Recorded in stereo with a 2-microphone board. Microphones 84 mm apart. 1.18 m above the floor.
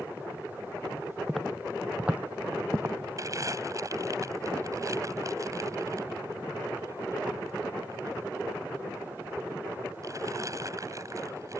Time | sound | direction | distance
1.3 | footsteps | centre (ahead or behind) | ?
3.2 | crumpling | 40° right (ahead or behind) | ?